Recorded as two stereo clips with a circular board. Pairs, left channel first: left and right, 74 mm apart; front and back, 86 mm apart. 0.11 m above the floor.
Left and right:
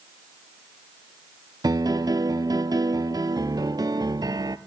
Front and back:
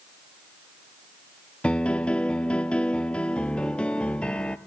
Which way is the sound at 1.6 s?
75° right.